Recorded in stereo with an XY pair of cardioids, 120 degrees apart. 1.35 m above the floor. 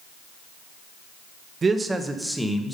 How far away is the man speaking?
About 1.1 m.